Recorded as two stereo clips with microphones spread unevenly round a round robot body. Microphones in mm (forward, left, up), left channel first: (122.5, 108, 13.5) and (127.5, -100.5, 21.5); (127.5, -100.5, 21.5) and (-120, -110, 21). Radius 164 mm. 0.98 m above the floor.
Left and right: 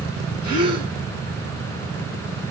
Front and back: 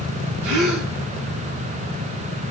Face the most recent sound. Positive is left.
turn(degrees=165)